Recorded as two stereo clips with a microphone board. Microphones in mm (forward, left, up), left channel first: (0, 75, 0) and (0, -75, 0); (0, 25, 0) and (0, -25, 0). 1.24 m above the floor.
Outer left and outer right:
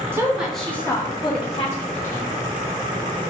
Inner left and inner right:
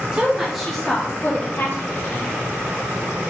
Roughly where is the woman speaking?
Centre.